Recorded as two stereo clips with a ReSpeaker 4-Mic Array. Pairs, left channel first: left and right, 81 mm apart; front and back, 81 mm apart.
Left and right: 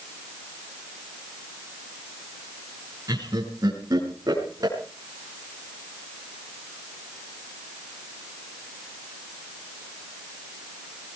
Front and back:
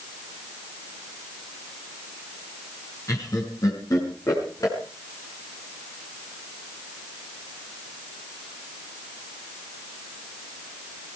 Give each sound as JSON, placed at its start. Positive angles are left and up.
{"t": 3.1, "sound": "laughter", "azimuth_deg": -50, "distance_m": 5.0}